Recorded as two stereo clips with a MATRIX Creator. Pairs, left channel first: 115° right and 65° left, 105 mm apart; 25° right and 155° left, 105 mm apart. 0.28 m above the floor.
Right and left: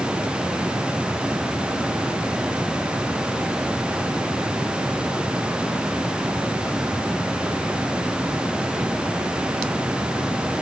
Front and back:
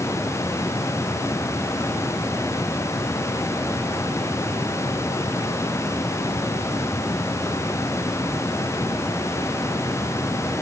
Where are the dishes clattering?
No dishes clattering in this recording.